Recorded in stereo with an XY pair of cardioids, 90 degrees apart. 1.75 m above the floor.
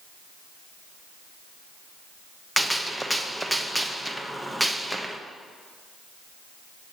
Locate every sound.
2.6 s a gunshot: 5° right, 0.9 m